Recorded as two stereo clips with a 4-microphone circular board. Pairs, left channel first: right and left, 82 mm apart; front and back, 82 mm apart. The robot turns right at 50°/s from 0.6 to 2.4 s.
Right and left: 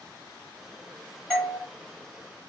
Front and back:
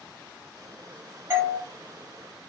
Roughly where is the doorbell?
Behind.